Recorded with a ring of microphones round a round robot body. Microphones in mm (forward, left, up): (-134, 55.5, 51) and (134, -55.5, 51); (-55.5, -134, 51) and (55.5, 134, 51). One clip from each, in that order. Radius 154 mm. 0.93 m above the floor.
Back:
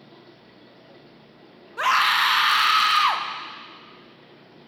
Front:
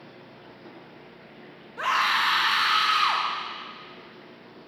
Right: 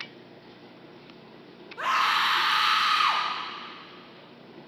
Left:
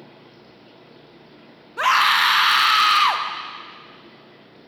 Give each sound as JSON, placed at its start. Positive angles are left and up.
{"t": 1.8, "sound": "a scream", "azimuth_deg": 110, "distance_m": 0.8}